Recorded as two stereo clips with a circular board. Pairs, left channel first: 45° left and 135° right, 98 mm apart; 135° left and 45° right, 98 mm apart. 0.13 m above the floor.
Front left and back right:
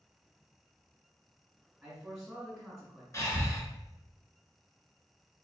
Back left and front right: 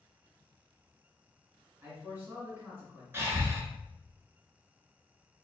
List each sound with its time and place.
1.8 s a man speaking: 55° right, 1.4 m
3.1 s breathing: 5° left, 0.8 m